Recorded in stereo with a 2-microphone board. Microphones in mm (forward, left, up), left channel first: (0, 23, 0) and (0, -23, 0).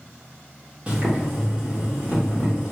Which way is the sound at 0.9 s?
25° right (ahead or behind).